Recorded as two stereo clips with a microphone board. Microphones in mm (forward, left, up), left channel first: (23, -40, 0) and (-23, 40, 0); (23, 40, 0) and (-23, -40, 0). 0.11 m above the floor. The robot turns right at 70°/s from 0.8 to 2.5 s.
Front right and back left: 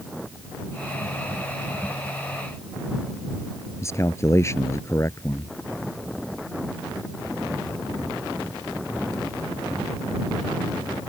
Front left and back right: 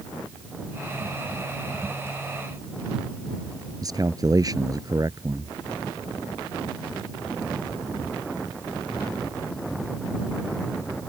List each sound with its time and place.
3.8 s a man speaking: 100° right